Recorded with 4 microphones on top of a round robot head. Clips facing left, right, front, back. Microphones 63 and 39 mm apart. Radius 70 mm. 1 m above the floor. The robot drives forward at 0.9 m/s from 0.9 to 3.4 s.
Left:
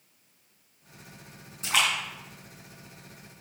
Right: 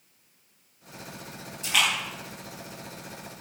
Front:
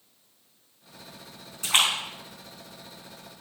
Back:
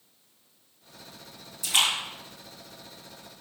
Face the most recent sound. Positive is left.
turn(degrees=55)